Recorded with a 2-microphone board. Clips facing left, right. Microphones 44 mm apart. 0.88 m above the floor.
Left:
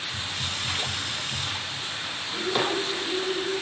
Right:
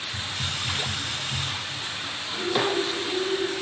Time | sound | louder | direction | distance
0.1 | a hiss | right 2 dB | 30° right (ahead or behind) | 2 m
2.3 | breathing | right 2 dB | 15° right (ahead or behind) | 3 m